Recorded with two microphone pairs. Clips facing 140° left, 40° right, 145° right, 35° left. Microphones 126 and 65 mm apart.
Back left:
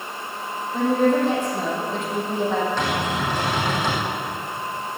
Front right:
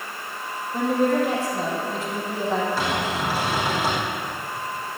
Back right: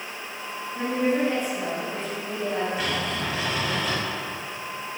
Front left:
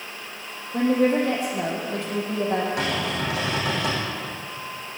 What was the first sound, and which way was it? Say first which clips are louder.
A woman speaking: back left 2 dB, front left 4 dB; 45° left.